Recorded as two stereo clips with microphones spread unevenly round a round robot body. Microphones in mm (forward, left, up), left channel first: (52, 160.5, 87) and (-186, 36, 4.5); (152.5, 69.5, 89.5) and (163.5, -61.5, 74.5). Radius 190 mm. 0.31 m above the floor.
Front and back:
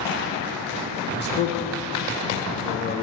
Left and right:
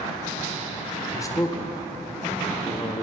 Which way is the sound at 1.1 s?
55° left.